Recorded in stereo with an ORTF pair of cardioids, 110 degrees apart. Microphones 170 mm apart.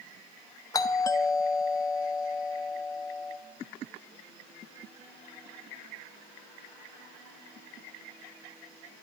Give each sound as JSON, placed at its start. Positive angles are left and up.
{"t": 0.7, "sound": "a doorbell", "azimuth_deg": 20, "distance_m": 0.5}